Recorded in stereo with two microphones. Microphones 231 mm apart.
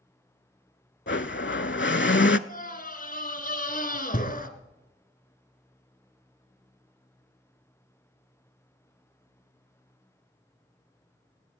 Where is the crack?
No crack in this recording.